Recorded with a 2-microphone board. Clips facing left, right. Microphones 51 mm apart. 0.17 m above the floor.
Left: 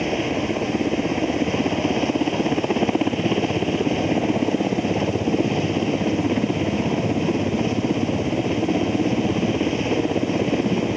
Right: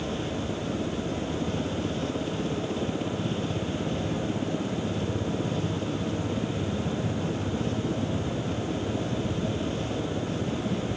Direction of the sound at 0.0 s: 65° left (ahead or behind).